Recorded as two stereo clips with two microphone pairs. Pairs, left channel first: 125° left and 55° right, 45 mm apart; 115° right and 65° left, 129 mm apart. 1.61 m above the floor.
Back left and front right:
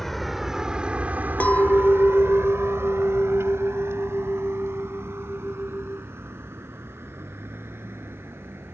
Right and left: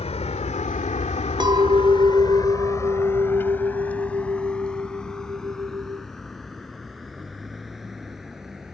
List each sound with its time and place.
0.0 s a vehicle: 150° right; by 8.8 s 25° right
1.4 s a clink: 95° left